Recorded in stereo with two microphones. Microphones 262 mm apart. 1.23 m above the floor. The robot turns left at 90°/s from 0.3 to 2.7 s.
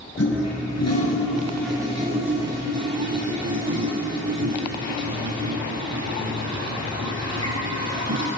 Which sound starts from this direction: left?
A toilet flushing, at 0.2 s.